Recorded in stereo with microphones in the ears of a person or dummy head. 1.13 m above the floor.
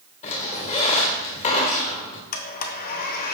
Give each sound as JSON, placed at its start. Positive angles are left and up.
{"t": 0.2, "sound": "a squeak", "side_deg": 35, "distance_m": 1.7}
{"t": 2.3, "sound": "a blender", "side_deg": 45, "distance_m": 1.1}